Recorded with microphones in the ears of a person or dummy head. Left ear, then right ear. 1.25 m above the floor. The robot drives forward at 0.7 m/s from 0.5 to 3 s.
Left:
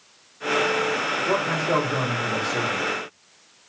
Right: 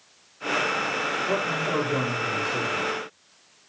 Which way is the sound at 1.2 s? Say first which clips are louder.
Left 3 dB; 85° left.